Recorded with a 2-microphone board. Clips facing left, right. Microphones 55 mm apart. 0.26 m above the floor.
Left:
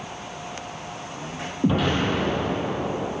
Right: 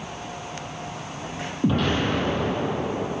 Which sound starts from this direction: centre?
An explosion, at 1.6 s.